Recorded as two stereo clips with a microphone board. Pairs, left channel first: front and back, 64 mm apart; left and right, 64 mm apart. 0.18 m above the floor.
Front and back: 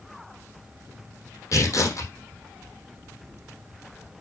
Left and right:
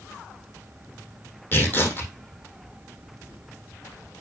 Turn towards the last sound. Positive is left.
turn(degrees=35)